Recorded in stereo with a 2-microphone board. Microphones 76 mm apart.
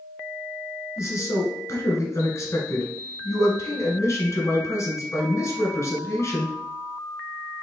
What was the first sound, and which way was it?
A man speaking, 40° left (ahead or behind).